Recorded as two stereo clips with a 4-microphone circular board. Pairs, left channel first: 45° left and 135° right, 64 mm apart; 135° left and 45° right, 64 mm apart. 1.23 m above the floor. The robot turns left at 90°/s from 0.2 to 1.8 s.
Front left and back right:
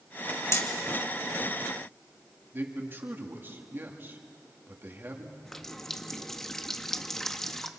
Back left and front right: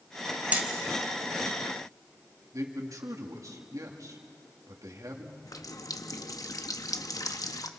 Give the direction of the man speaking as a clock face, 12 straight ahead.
3 o'clock.